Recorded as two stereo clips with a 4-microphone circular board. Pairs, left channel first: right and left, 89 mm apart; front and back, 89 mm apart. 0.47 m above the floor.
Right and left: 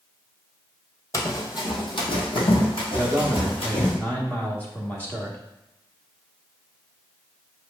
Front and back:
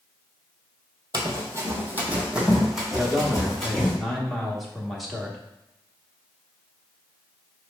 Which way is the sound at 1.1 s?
145° right.